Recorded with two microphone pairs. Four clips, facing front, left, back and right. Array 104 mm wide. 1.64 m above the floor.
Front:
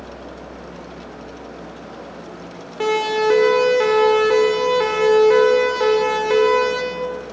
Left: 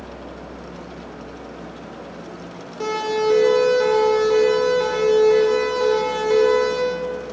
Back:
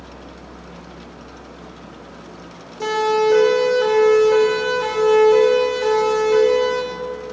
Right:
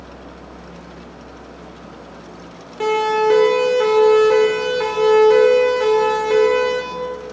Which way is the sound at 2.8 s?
30° right.